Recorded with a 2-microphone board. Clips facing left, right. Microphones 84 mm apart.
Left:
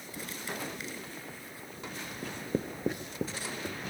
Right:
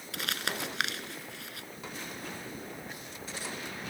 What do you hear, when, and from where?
0.1 s crumpling: 85° right
2.2 s writing: 75° left (ahead or behind)